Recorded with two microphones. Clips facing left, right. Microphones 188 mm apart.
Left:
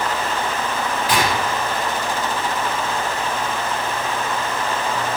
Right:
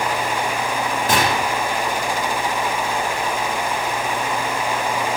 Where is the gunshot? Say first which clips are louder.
Right 1 dB; 50° right (ahead or behind), 1.6 m.